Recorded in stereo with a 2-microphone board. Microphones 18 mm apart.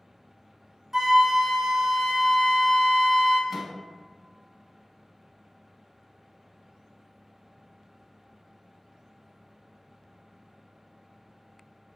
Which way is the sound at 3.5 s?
15° right (ahead or behind).